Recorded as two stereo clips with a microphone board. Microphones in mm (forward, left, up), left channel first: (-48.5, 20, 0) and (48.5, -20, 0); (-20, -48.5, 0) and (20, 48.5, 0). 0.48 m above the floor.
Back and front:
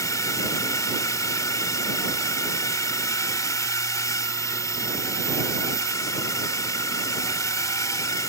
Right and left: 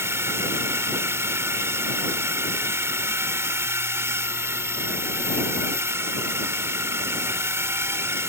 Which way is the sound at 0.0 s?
120° left.